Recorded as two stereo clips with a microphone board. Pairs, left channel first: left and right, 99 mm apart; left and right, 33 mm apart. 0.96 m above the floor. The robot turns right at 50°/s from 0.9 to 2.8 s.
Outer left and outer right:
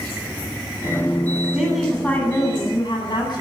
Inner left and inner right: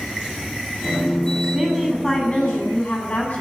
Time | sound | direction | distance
1.5 | a woman speaking | 15° right | 9.5 m